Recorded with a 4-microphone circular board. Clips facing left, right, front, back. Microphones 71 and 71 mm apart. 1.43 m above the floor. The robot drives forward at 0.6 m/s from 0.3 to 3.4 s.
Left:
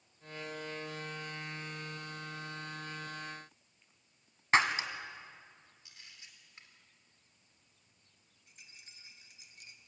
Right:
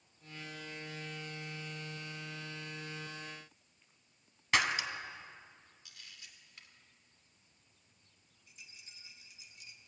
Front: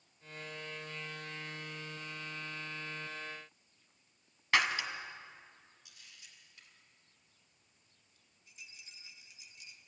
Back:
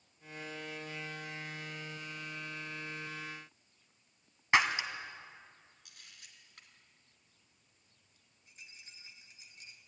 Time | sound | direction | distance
4.5 | breaking glass | 120° left | 1.6 m
5.8 | a camera shutter | 150° left | 2.5 m
8.5 | a rattle | 130° left | 1.8 m